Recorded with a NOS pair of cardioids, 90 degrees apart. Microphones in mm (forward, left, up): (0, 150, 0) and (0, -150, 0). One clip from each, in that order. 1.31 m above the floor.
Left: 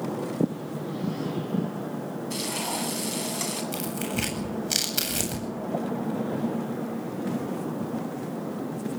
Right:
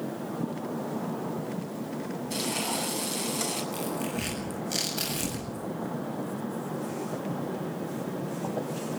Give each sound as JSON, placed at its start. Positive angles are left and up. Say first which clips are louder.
{"t": 2.3, "sound": "frying", "louder": "even", "azimuth_deg": 10, "distance_m": 8.5}
{"t": 3.7, "sound": "tearing paper", "louder": "left 1 dB", "azimuth_deg": 65, "distance_m": 9.0}